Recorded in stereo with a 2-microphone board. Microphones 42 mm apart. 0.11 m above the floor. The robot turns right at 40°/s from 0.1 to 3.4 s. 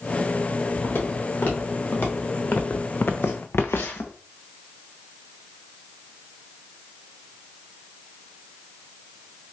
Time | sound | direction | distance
0.8 | footsteps | 90° left | 2 m